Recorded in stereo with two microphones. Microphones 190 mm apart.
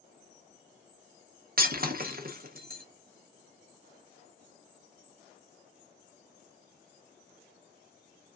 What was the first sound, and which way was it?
Breaking glass, 50° right (ahead or behind).